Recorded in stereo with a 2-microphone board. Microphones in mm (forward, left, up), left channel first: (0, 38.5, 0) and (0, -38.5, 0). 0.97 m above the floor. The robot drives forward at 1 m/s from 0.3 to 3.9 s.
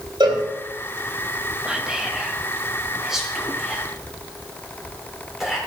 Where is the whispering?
10° right (ahead or behind), 1.3 m; by 5.6 s 5° right (ahead or behind), 3.5 m.